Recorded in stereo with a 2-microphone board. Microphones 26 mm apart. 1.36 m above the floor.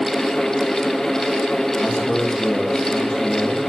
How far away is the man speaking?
About 6 m.